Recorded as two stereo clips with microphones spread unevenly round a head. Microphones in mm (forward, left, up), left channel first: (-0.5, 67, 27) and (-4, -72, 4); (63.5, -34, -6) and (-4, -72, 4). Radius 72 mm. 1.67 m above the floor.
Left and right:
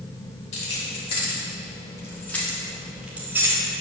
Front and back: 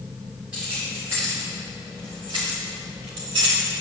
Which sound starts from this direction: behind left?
Keys jangling, at 0.5 s.